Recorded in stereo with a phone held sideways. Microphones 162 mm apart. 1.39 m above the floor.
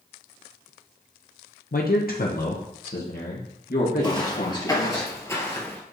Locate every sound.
1.7 s a man speaking: 65° left (ahead or behind), 0.7 m; by 5.0 s 70° left (ahead or behind), 2.5 m
4.0 s footsteps: 30° left (ahead or behind), 1.5 m; by 5.8 s 10° left (ahead or behind), 1.6 m